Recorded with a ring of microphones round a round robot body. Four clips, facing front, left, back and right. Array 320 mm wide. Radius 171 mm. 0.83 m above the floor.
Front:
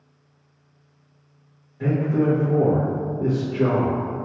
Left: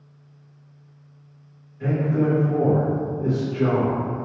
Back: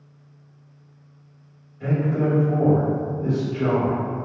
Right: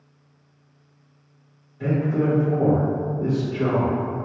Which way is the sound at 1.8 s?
20° right.